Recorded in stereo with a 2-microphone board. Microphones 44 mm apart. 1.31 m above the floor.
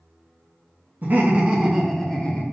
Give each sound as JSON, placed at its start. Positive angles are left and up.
{"t": 1.0, "sound": "laughter", "side_deg": -40, "distance_m": 0.6}